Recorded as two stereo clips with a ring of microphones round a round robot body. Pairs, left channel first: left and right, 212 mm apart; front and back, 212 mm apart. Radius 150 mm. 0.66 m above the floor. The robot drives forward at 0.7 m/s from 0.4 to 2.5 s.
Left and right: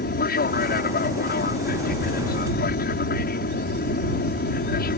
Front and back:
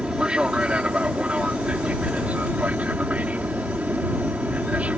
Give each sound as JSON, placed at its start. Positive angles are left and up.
{"t": 0.0, "sound": "an aircraft", "azimuth_deg": 95}